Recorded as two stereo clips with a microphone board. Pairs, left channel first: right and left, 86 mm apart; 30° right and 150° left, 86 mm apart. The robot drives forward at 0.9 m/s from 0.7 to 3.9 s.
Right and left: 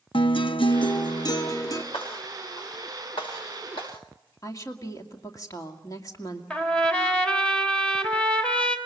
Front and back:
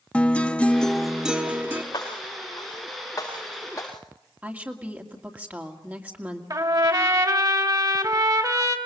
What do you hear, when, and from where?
0.1 s a guitar: 105° right, 1.0 m; by 1.8 s 145° right, 1.6 m
1.9 s breaking glass: 75° right, 8 m; by 3.9 s 90° right, 8 m
4.4 s a woman speaking: 140° right, 2 m
6.5 s a trumpet: 170° right, 2.5 m